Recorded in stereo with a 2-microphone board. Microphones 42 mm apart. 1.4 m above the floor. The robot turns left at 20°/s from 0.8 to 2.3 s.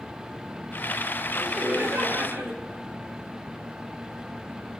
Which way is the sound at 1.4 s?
85° right.